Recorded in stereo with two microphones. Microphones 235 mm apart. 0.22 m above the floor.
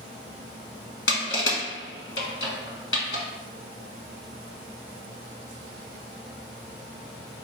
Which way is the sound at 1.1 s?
60° left (ahead or behind).